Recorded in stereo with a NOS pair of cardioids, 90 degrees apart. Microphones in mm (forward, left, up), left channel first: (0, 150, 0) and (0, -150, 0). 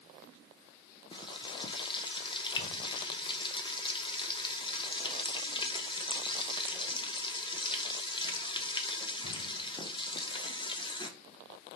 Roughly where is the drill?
No drill in this recording.